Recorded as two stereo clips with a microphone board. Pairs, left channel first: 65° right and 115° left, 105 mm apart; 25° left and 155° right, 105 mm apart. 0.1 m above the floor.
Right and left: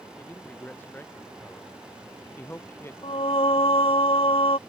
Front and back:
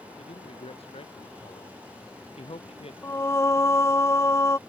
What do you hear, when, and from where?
0.2 s a man speaking: 5° left; by 2.9 s straight ahead
3.0 s singing: 40° right